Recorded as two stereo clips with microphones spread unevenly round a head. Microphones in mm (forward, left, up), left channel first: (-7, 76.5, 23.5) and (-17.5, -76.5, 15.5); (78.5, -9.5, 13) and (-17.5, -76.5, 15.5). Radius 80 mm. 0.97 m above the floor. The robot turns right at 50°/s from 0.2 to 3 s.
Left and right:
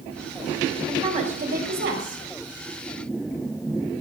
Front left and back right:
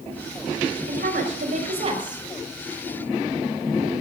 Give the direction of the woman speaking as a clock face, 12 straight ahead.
5 o'clock.